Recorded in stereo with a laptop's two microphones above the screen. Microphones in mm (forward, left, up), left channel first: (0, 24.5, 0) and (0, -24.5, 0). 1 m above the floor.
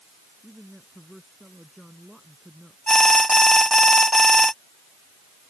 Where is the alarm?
15° left (ahead or behind).